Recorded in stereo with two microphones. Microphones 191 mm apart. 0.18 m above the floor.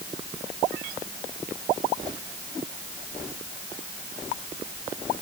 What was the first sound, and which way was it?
Only background noise.